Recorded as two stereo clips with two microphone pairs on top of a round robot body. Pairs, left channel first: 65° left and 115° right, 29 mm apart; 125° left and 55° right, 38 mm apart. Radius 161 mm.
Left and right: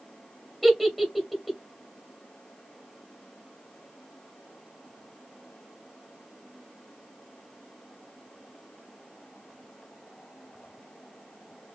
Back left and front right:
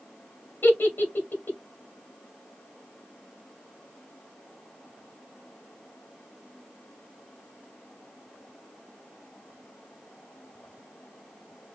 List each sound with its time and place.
0.6 s a giggle: 145° left, 1.5 m